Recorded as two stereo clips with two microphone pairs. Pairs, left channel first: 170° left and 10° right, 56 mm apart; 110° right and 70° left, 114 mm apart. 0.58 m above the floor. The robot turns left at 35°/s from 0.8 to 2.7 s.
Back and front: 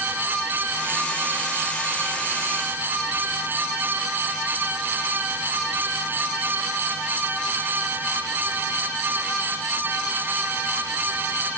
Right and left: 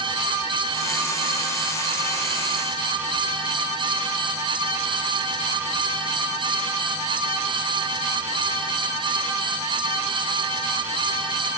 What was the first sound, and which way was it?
Only background noise.